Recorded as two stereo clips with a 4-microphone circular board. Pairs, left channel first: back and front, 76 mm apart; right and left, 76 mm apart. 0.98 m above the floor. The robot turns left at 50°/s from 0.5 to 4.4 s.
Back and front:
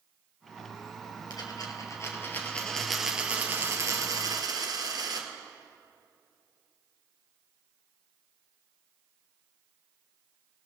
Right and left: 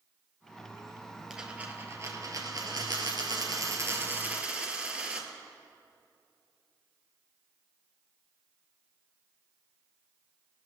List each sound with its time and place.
1.3 s a dropped coin: 170° left, 1.9 m; by 5.3 s 15° left, 1.9 m